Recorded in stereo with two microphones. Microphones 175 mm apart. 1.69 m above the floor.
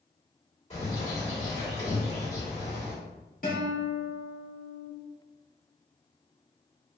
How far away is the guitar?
About 1.8 m.